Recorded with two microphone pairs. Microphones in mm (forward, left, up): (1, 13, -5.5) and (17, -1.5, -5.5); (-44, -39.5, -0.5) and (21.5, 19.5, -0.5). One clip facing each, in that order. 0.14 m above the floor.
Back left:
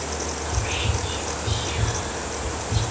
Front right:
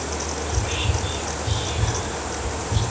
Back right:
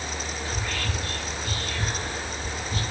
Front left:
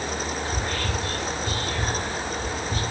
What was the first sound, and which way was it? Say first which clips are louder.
Whispering: back left 1 dB, front left 3 dB; 95° left.